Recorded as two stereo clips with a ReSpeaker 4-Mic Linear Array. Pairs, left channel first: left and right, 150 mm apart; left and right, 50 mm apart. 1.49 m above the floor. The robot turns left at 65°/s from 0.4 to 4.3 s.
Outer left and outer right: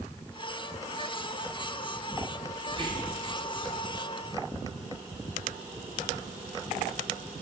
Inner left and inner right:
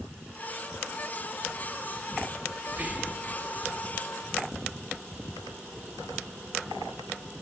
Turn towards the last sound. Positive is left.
turn(degrees=115)